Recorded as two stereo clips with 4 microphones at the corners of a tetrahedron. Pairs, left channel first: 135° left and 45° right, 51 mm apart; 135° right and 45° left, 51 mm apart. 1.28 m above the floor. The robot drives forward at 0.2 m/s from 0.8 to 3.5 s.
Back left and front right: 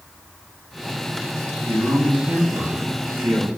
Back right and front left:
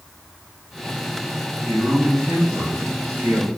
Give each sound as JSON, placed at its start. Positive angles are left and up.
{"t": 1.6, "sound": "a man speaking", "azimuth_deg": -20, "distance_m": 1.6}